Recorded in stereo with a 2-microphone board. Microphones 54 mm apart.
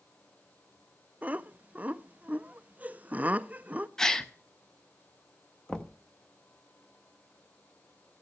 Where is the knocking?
15° left (ahead or behind), 0.7 m.